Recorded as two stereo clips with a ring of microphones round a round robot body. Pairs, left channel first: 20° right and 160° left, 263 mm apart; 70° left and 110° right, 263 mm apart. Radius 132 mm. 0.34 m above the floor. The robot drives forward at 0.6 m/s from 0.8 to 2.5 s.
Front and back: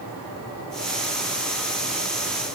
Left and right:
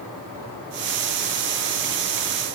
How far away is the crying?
I don't hear crying.